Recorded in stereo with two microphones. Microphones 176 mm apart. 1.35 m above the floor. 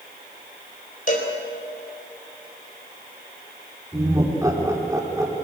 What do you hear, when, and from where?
1.1 s a cowbell: 50° left (ahead or behind), 4 m
3.9 s laughter: 20° right (ahead or behind), 4.5 m